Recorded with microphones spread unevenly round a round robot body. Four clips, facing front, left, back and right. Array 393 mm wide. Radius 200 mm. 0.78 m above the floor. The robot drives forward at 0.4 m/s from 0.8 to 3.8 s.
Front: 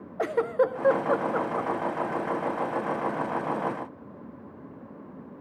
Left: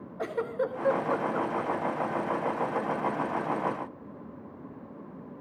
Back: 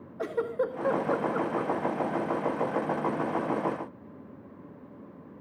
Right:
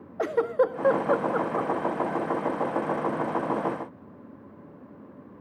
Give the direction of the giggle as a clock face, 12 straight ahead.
2 o'clock.